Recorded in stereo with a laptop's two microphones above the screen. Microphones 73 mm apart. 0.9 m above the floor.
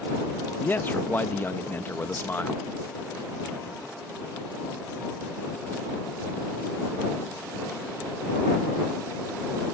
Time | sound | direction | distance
0.6 | a man speaking | 25° left (ahead or behind) | ?